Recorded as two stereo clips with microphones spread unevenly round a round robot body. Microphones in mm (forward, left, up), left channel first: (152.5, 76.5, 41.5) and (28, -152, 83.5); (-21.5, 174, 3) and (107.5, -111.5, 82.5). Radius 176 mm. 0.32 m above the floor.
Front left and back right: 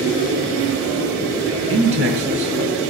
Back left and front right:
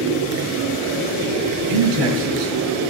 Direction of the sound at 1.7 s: 75° right.